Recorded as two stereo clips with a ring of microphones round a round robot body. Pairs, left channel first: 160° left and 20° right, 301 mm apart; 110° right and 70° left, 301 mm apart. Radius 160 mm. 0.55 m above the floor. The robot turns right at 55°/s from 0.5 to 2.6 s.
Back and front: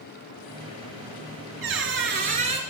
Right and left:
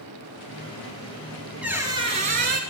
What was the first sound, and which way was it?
A squeak, 15° right.